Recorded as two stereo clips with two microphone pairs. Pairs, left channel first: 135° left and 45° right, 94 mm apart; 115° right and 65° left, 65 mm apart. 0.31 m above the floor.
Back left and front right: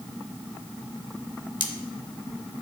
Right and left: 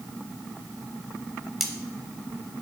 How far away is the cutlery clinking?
About 0.7 m.